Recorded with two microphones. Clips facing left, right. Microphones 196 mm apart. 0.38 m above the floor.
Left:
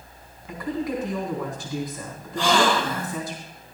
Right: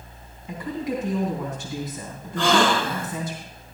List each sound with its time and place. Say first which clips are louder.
0.5 s a woman speaking: left 1 dB; 25° right (ahead or behind), 3.5 m
2.4 s a gasp: right 1 dB; 65° right (ahead or behind), 2.5 m